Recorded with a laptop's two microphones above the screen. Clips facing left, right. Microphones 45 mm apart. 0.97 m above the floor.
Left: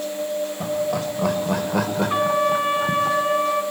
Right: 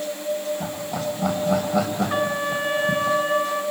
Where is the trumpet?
35° left (ahead or behind), 3 m.